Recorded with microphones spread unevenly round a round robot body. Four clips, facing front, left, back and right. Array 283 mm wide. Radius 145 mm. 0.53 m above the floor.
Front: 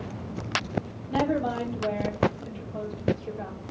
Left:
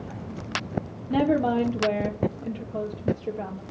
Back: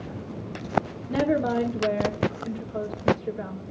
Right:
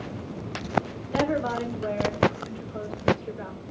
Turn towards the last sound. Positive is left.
turn(degrees=125)